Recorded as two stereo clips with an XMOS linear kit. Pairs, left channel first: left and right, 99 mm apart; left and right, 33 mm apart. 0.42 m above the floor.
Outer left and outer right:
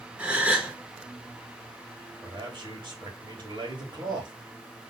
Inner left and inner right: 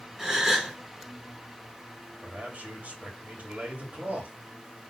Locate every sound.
0.2 s a gasp: 10° right (ahead or behind), 1.2 m
2.2 s a man speaking: 50° right (ahead or behind), 2.0 m